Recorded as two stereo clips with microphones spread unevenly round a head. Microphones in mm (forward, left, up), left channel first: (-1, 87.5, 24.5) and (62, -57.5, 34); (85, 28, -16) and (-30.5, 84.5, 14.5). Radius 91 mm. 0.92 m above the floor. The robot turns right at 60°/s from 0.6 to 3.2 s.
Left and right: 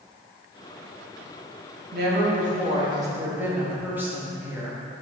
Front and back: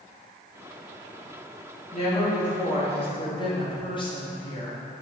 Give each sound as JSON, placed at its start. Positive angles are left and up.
{"t": 1.9, "sound": "a woman speaking", "azimuth_deg": -65, "distance_m": 1.8}